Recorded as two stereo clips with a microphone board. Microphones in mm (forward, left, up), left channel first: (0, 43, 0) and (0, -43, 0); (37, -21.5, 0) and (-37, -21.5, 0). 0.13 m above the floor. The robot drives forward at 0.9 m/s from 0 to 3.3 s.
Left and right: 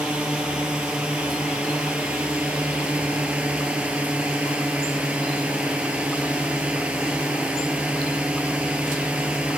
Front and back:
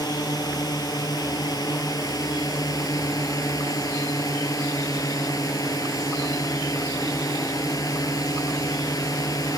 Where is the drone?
10° right; by 9.6 s 15° right.